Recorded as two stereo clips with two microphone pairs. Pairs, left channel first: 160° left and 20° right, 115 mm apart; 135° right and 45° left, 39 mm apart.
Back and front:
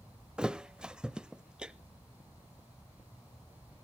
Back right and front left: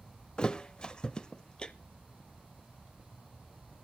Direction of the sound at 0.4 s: 95° right.